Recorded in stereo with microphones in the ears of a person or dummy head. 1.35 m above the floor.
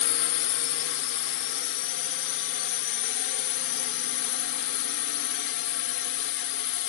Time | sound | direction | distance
0.0 | a drone | 55° left (ahead or behind) | ?